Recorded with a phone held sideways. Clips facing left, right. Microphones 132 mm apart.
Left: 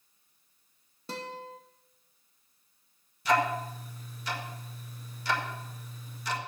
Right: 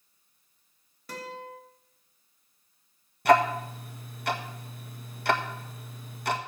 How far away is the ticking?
About 1.5 m.